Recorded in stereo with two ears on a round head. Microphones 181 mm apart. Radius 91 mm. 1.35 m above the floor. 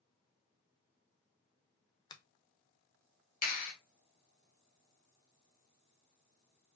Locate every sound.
2.1 s a finger snap: 20° left (ahead or behind), 0.7 m
3.4 s a clap: 45° left (ahead or behind), 1.4 m